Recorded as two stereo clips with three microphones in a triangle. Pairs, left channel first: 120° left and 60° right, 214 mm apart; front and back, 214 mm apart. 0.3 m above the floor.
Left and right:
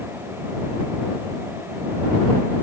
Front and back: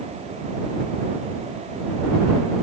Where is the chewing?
No chewing in this recording.